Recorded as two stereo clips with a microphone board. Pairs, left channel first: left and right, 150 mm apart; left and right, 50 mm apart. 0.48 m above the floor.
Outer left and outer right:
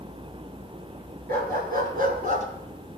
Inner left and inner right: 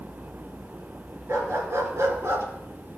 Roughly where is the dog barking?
Right.